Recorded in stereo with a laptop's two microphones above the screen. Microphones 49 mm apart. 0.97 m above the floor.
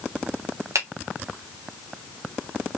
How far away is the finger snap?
About 2 m.